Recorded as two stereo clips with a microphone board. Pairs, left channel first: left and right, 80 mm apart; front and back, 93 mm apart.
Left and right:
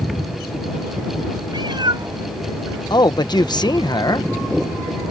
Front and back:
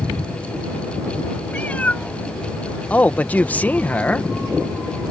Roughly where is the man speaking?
Left.